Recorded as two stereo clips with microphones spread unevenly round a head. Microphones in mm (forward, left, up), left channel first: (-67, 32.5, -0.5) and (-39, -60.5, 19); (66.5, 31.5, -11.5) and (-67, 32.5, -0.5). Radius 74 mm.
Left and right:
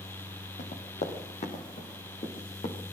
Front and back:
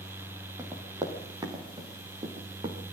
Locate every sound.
0.6 s running footsteps: 115° left, 5.5 m; by 2.8 s 130° left, 6.5 m